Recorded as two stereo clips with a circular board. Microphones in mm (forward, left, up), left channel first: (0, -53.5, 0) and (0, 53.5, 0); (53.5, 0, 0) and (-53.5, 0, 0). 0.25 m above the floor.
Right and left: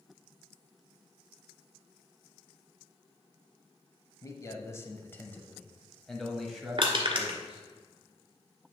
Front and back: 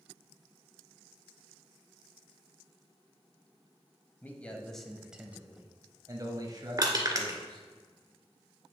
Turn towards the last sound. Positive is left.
turn(degrees=125)